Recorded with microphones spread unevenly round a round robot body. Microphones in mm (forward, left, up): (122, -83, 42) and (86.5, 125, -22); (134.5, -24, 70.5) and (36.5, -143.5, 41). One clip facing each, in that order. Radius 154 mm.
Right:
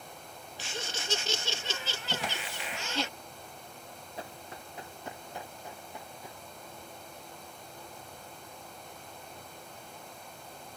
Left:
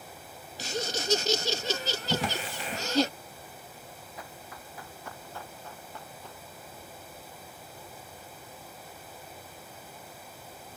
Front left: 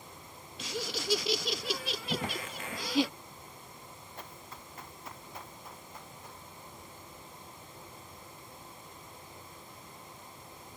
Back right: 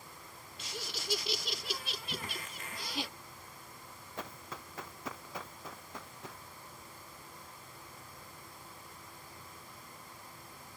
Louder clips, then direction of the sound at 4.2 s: Right 4 dB, back right 5 dB; 150° right.